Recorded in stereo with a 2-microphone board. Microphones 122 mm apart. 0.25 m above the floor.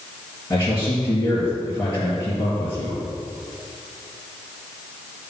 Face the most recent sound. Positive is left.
turn(degrees=25)  # may be behind; listen again after turning